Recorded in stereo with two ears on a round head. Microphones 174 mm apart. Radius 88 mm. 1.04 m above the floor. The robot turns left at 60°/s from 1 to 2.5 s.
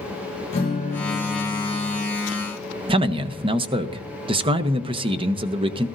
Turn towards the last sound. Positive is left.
turn(degrees=-30)  # may be behind; listen again after turning